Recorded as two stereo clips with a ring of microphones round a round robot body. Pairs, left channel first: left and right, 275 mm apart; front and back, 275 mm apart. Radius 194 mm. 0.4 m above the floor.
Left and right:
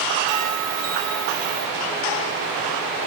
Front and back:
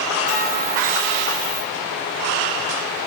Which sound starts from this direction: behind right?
A bell, at 0.3 s.